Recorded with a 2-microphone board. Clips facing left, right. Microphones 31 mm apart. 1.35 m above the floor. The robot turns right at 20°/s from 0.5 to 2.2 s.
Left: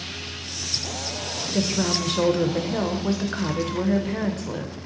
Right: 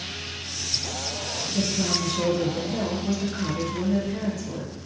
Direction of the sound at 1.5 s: 60° left (ahead or behind).